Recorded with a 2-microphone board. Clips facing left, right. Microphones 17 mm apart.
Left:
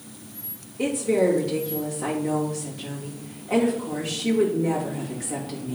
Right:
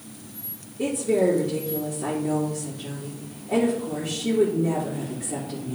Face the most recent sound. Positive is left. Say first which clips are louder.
# even
turn(degrees=35)  # may be behind; listen again after turning